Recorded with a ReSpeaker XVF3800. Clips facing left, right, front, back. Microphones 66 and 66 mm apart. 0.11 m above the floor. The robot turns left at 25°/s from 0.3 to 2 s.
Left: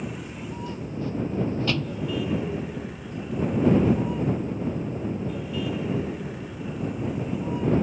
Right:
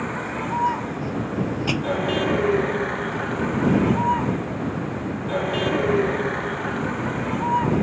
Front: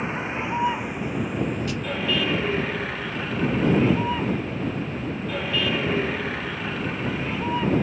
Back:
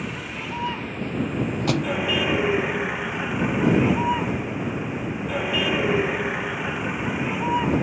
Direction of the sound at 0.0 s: 65° right.